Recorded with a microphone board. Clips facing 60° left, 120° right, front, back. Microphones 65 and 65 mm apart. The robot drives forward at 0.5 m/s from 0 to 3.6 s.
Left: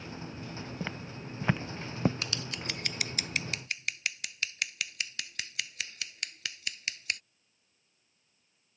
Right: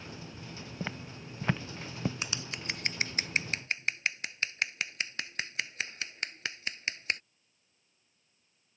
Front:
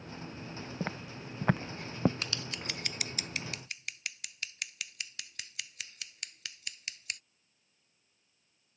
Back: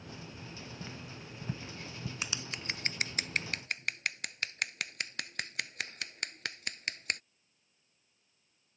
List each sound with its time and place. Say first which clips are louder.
0.8 s footsteps: right 3 dB, front 7 dB; 35° right; by 2.1 s 5° left
2.2 s scissors: even, even; 135° right; by 7.2 s 170° right